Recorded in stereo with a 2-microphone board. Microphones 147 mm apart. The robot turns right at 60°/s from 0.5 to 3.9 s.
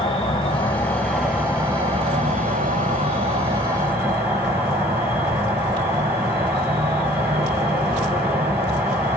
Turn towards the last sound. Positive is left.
turn(degrees=-20)